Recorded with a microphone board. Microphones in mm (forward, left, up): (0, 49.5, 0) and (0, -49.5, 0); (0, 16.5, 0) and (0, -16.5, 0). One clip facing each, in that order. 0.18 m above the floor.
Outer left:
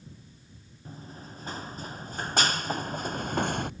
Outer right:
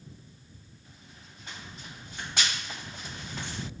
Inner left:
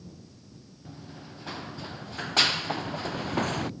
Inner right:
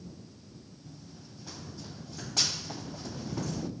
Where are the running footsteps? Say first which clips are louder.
Outer left 13 dB, inner left 9 dB; 40° left (ahead or behind); by 3.7 s 55° left (ahead or behind).